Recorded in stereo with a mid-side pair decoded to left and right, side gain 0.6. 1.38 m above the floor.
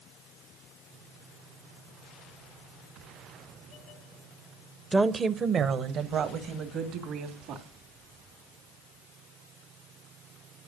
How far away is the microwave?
I don't hear a microwave.